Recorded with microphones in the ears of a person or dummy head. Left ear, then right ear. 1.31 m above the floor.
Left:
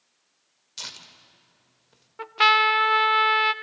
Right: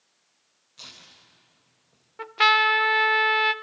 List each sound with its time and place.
0.8 s tearing paper: 80° left, 2.5 m
2.2 s a trumpet: 5° left (ahead or behind), 0.5 m